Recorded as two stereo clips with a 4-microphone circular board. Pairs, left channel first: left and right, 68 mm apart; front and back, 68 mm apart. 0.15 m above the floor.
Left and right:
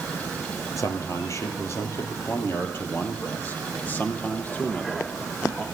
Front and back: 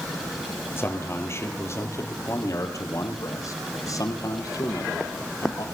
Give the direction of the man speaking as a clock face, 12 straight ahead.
10 o'clock.